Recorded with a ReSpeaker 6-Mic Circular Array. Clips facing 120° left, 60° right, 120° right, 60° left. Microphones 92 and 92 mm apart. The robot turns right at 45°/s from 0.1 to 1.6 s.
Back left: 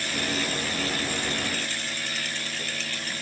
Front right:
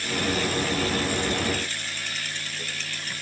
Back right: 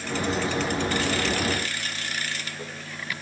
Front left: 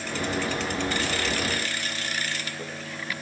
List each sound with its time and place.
Only background noise.